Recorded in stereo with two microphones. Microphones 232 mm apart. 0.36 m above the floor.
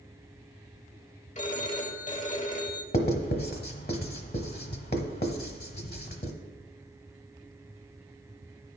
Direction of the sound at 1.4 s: 35° left (ahead or behind).